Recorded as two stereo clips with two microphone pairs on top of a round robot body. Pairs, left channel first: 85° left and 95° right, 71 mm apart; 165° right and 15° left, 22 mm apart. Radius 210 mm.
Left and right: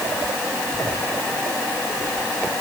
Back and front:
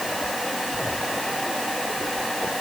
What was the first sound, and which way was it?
Only background noise.